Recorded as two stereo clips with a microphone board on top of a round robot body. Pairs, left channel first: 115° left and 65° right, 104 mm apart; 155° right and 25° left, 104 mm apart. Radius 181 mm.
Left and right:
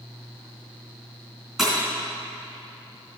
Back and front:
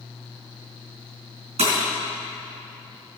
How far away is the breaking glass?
About 3.5 m.